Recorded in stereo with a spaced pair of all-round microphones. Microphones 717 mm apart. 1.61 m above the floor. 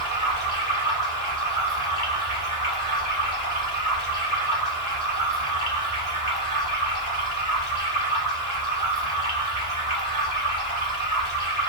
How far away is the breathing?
No breathing in this recording.